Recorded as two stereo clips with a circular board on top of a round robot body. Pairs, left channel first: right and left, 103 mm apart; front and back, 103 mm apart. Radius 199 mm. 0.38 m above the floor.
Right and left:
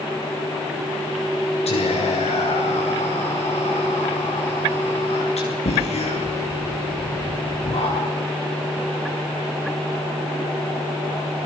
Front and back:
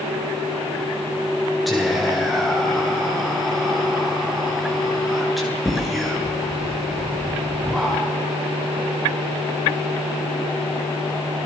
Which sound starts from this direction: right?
Whispering, at 1.7 s.